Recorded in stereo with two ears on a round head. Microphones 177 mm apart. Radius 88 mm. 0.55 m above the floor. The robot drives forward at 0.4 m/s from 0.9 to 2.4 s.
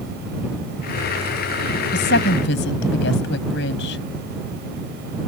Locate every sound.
1.9 s a woman speaking: 60° left (ahead or behind); by 4.0 s 65° left (ahead or behind)